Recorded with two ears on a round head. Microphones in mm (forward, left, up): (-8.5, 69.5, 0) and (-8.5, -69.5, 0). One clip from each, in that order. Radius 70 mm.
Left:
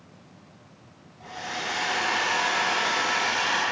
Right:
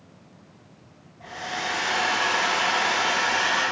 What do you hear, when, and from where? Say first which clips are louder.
1.2 s a hair dryer: right 2 dB; 10° left (ahead or behind), 1.2 m